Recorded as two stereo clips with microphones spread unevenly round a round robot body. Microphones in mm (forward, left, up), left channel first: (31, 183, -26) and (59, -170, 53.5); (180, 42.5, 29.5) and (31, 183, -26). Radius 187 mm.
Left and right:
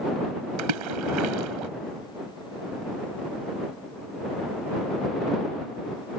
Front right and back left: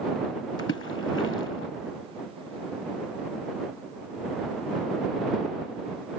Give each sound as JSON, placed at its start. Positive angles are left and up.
{"t": 0.6, "sound": "a splash", "azimuth_deg": -105}